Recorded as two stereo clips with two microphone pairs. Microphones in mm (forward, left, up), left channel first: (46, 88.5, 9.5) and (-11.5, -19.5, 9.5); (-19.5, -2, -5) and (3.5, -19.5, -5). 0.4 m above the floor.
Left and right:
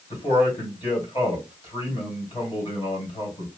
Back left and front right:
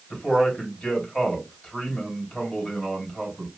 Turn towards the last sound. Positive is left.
turn(degrees=95)